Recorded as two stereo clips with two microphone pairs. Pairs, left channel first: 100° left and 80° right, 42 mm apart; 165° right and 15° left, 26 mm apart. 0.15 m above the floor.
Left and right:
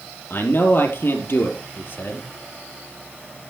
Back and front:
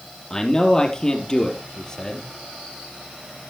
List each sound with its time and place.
0.3 s a man speaking: 125° left, 4 m